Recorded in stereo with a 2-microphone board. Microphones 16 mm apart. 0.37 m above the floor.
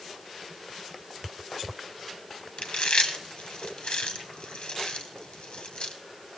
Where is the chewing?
70° left (ahead or behind), 1.3 m.